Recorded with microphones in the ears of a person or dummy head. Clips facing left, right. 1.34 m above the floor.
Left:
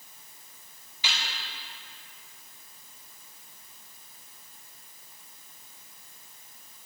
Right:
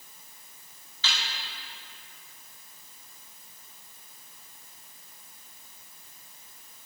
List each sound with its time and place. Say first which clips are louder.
1.0 s a snare drum: even; 15° left (ahead or behind), 2 m